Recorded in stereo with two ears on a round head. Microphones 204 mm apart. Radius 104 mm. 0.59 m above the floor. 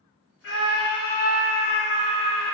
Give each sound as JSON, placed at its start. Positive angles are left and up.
{"t": 0.4, "sound": "a scream", "side_deg": 55, "distance_m": 1.4}